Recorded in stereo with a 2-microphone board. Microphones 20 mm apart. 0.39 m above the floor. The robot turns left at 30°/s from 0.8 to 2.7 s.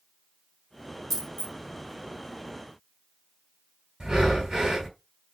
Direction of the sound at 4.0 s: 35° right (ahead or behind).